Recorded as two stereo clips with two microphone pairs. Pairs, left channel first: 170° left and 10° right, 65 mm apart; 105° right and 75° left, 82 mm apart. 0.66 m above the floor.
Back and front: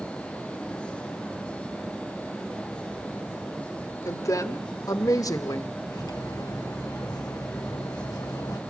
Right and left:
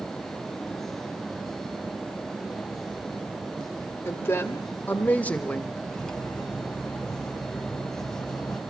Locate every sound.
4.0 s a woman speaking: 160° right, 2.5 m; by 5.7 s straight behind, 1.5 m
5.9 s cutlery clinking: 175° left, 2.5 m